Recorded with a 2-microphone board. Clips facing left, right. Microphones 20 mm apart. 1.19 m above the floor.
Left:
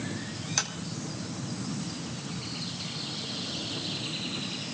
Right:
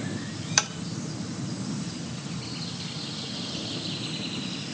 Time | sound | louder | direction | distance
0.6 | tapping | right 5 dB | 30° right (ahead or behind) | 1.0 m